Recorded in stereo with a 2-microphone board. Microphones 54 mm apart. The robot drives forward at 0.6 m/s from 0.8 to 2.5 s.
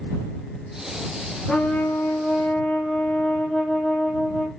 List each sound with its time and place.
1.5 s a trumpet: 25° left (ahead or behind), 1.0 m; by 4.5 s 15° left (ahead or behind), 1.5 m